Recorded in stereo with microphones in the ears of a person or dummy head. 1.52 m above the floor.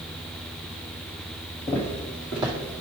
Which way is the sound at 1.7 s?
15° left (ahead or behind).